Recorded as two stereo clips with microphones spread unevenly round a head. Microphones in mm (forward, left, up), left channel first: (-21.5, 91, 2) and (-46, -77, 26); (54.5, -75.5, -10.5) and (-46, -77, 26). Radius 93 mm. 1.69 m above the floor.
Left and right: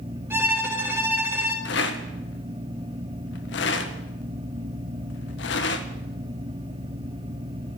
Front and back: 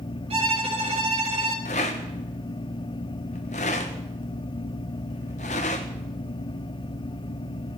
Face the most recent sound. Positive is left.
turn(degrees=45)